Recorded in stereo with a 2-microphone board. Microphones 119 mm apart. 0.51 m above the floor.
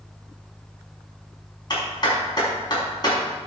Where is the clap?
35° left (ahead or behind), 4.5 m.